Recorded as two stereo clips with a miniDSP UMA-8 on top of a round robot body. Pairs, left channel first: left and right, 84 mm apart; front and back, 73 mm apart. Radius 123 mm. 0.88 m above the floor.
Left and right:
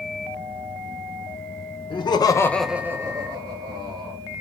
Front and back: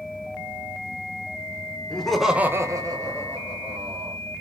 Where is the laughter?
80° left, 0.8 m; by 4.2 s 130° right, 1.9 m.